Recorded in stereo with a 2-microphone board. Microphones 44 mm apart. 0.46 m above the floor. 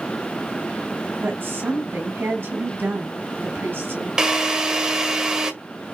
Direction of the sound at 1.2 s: 65° right (ahead or behind).